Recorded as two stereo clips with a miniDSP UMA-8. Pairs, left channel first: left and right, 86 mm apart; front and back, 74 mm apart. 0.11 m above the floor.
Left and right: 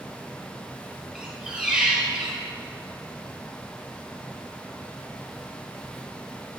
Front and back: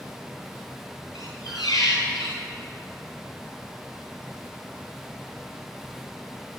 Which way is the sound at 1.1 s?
10° right.